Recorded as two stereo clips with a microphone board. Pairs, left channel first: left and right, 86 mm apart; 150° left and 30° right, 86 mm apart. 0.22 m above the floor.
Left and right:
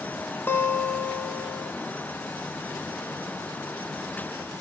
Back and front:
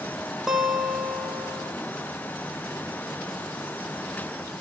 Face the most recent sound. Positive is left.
turn(degrees=45)